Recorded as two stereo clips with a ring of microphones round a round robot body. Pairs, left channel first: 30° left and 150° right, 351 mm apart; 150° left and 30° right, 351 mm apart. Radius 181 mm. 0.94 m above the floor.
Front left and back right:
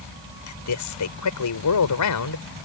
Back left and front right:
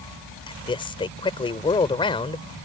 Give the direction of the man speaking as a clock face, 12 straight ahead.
10 o'clock.